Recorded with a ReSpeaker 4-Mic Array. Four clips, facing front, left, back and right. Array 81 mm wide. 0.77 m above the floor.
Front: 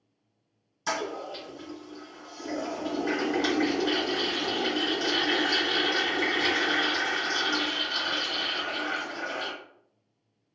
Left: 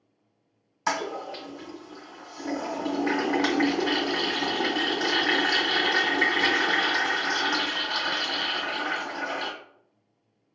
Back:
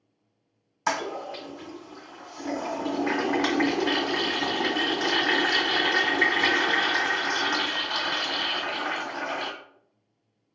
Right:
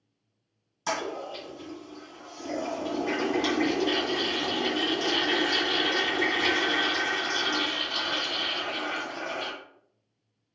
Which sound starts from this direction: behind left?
A toilet flushing, at 0.9 s.